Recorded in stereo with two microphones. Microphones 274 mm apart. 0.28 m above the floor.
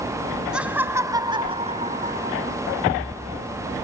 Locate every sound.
0.5 s laughter: 5° right (ahead or behind), 1.8 m; by 2.6 s 35° right (ahead or behind), 1.9 m